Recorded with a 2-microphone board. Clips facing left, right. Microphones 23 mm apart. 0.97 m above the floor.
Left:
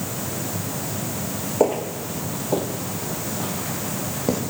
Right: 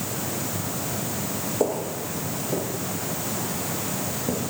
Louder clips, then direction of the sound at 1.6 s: Left 5 dB; 35° left (ahead or behind).